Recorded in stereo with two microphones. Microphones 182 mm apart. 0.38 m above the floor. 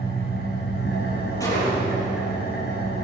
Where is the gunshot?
20° left (ahead or behind), 8.5 m.